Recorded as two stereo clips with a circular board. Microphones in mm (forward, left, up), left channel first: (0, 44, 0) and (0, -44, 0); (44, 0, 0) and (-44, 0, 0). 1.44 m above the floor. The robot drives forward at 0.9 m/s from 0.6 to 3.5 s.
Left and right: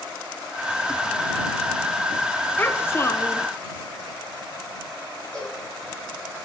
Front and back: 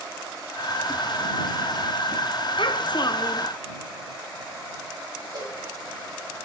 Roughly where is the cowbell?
Behind.